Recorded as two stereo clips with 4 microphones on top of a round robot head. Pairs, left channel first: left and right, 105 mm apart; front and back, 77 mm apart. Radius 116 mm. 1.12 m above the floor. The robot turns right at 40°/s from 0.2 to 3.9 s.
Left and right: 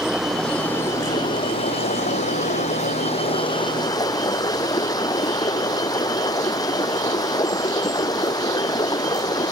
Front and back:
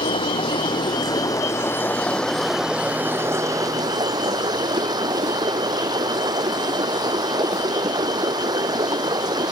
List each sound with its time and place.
0.0 s running water: 5° right; by 9.5 s 145° left